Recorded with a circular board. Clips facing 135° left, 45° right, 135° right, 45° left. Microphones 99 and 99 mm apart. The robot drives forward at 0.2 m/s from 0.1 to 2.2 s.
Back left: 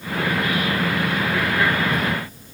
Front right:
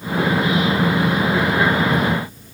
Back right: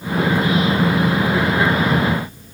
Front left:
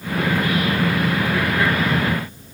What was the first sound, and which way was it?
Only background noise.